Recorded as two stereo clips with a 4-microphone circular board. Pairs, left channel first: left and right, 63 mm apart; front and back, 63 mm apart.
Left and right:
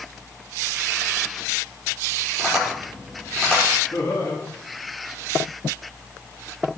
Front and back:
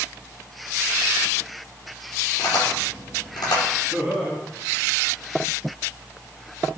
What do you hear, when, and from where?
2.4 s tapping: 10° left, 6 m
3.9 s laughter: 110° left, 4 m